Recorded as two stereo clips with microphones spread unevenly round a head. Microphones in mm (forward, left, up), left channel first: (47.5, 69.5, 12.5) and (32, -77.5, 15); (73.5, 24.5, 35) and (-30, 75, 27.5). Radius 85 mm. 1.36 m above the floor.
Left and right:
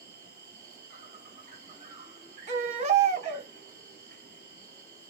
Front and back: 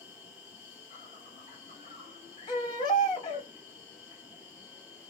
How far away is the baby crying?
About 0.7 m.